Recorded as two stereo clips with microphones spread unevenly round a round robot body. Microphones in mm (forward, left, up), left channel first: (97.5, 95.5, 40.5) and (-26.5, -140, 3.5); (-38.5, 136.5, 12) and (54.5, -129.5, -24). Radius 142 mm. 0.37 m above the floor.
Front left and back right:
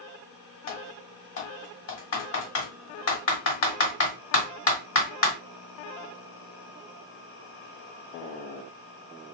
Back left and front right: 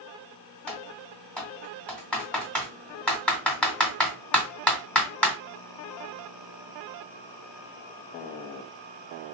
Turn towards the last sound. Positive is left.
turn(degrees=20)